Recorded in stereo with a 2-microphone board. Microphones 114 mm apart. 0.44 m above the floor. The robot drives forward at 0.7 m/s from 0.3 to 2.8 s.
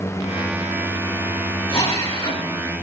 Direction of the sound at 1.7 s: 55° left (ahead or behind).